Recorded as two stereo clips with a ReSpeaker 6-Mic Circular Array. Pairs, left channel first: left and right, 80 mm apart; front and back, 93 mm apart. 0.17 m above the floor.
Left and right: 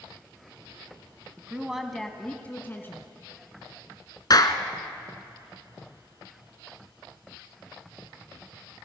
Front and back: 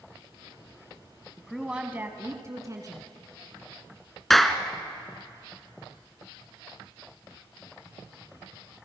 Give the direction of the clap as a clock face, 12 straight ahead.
9 o'clock.